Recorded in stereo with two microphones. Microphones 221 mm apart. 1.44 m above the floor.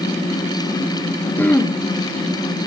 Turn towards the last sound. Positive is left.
turn(degrees=10)  # may be behind; listen again after turning